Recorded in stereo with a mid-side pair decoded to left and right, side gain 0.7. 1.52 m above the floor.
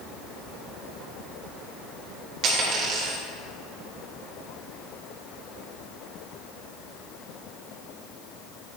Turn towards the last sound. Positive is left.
turn(degrees=-55)